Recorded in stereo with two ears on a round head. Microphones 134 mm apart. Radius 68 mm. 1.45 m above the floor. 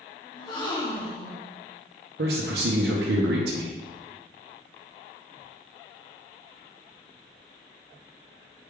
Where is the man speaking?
80° right, 0.6 m.